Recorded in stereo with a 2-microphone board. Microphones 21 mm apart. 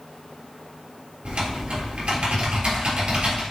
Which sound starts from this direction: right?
Typing on a keyboard, at 1.2 s.